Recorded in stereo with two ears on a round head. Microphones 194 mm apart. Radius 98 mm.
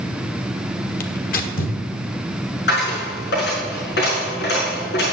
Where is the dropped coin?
50° left (ahead or behind), 6 m.